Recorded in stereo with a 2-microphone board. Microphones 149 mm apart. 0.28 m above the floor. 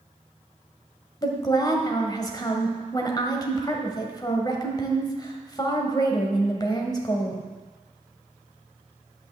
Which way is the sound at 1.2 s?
30° left (ahead or behind).